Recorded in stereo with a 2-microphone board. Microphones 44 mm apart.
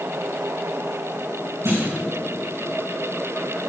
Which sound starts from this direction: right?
A clunk, at 1.6 s.